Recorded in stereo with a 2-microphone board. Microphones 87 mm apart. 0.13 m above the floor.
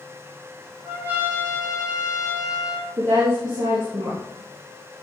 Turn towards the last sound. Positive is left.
turn(degrees=-60)  # may be behind; listen again after turning